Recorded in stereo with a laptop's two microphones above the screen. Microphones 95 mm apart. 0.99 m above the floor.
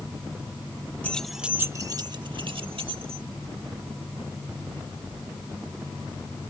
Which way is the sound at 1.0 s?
15° left (ahead or behind).